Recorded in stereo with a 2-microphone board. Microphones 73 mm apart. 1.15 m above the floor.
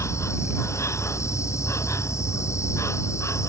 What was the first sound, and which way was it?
An insect, 45° left (ahead or behind).